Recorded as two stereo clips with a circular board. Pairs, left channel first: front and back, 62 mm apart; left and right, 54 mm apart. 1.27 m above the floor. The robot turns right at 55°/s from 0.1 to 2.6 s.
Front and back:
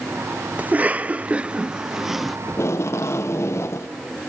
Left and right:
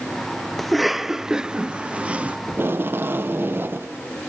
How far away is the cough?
About 0.5 m.